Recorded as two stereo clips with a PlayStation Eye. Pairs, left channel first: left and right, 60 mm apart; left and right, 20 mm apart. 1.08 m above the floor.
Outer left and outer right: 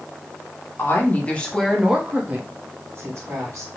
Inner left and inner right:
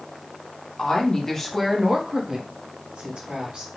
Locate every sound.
0.8 s a woman speaking: 35° left (ahead or behind), 1.0 m; by 3.7 s 60° right (ahead or behind), 1.4 m